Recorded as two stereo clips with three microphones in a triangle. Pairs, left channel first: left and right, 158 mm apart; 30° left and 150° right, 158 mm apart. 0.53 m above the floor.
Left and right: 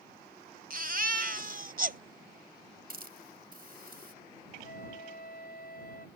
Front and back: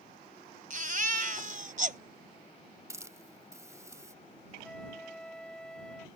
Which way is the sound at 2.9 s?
80° right.